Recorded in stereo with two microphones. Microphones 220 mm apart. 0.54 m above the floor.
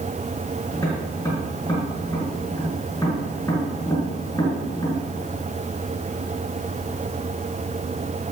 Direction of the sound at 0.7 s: 15° left (ahead or behind).